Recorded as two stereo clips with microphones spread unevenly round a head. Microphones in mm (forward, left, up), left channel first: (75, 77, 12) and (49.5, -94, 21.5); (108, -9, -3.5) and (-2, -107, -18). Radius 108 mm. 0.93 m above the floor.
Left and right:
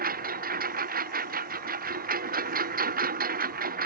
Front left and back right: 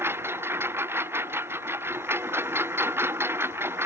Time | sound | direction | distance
0.0 | a lawn mower | 65° right | ?